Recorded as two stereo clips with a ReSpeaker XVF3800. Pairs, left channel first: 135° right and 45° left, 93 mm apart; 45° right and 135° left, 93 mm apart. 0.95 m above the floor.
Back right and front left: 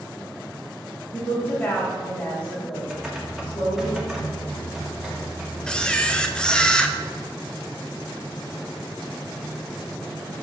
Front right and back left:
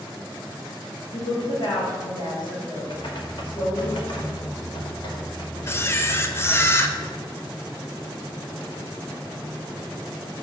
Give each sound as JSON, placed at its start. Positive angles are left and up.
{"t": 1.1, "sound": "a woman speaking", "azimuth_deg": -70, "distance_m": 2.0}
{"t": 2.9, "sound": "typing on a keyboard", "azimuth_deg": -40, "distance_m": 1.2}
{"t": 5.7, "sound": "a camera shutter", "azimuth_deg": -60, "distance_m": 0.5}